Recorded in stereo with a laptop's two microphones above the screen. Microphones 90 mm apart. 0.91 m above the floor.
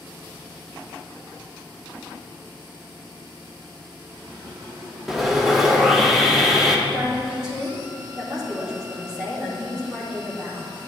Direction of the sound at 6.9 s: 10° right (ahead or behind).